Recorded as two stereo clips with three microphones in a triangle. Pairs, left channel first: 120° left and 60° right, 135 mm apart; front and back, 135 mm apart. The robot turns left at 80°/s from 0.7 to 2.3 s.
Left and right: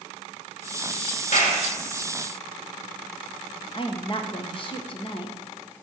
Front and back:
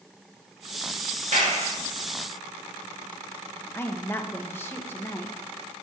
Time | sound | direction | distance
1.3 | a clap | 150° left | 2.5 m
3.7 | a woman speaking | 75° left | 1.0 m